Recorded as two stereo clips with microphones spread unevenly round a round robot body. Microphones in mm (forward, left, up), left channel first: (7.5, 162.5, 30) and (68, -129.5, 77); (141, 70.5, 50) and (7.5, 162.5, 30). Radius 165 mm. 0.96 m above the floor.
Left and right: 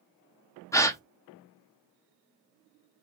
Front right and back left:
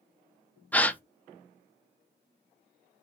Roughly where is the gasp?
Ahead left.